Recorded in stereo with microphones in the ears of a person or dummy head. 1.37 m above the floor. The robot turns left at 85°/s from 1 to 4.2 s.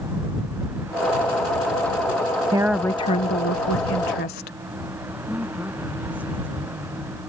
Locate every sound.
2.5 s a woman speaking: 160° right; by 4.6 s 55° left
5.3 s a woman speaking: 5° right (ahead or behind)